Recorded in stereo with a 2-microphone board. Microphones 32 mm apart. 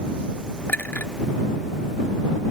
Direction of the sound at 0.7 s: 60° left (ahead or behind).